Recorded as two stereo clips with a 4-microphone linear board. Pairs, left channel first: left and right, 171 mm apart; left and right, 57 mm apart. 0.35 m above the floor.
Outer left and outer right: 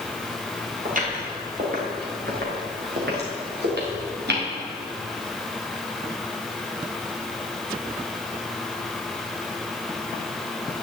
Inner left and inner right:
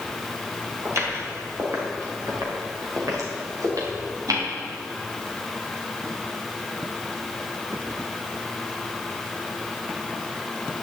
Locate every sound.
0.8 s footsteps: 55° right (ahead or behind), 4.5 m; by 4.5 s 85° right, 4 m